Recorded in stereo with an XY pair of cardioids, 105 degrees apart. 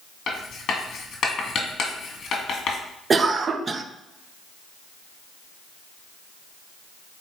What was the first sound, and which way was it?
Writing, 50° left.